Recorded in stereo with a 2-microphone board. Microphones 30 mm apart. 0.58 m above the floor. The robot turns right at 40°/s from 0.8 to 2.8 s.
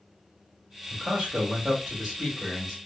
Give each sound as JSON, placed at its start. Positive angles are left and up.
{"t": 0.9, "sound": "a man speaking", "azimuth_deg": -85, "distance_m": 1.1}